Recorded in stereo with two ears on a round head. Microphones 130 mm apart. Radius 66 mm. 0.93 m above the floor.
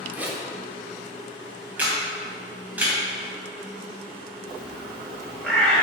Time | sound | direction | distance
0.1 | a zipper | 10° right (ahead or behind) | 1.8 m
1.8 | a camera shutter | 10° right (ahead or behind) | 3.5 m
4.5 | a bird | 5° left (ahead or behind) | 1.8 m